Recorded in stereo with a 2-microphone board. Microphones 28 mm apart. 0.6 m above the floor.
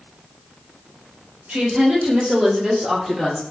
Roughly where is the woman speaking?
Right.